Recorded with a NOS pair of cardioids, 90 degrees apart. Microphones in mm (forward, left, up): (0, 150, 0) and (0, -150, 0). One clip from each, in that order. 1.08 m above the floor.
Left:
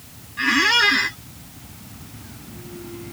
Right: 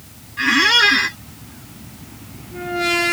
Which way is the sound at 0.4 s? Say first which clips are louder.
Right 3 dB; 10° right.